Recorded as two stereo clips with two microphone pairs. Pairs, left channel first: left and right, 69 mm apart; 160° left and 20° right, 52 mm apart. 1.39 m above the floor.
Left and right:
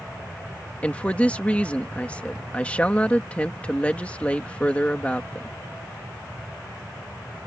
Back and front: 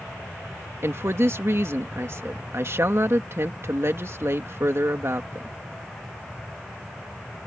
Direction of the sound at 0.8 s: 20° left.